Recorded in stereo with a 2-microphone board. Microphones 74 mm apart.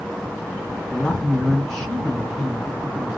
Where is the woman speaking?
15° left (ahead or behind), 2 m; by 3.2 s 15° right (ahead or behind), 1.5 m.